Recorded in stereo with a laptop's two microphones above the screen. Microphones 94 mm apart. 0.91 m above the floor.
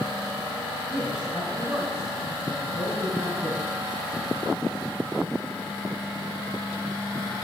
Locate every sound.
0.9 s a man speaking: 5° right (ahead or behind), 5.5 m